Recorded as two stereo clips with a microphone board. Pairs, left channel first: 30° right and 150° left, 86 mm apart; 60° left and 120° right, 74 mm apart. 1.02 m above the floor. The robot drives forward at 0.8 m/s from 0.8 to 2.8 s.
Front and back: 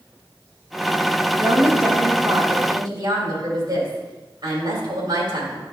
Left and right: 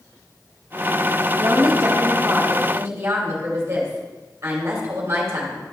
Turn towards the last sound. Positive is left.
turn(degrees=-175)